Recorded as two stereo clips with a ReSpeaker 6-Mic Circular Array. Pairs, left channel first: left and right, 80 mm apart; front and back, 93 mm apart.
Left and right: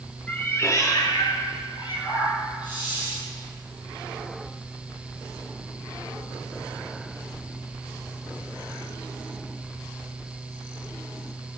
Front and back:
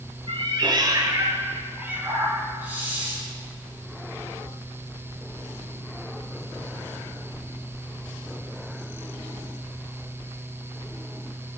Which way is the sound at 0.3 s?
160° left.